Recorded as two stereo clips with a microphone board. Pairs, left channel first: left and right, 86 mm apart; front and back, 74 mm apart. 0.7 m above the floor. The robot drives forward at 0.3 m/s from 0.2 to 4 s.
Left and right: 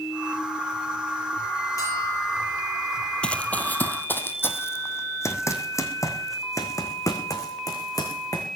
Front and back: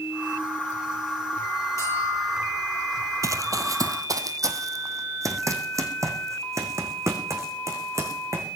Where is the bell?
40° left, 9.5 m; by 2.6 s 45° left, 9 m.